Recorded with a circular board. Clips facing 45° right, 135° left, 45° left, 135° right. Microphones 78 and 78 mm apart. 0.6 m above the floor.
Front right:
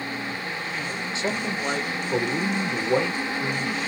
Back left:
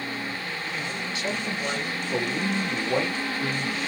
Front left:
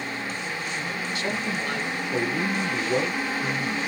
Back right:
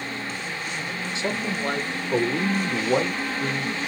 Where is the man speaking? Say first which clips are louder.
Front right 3 dB, back right 2 dB; 85° right, 0.9 m; by 3.8 s 130° right, 2.0 m.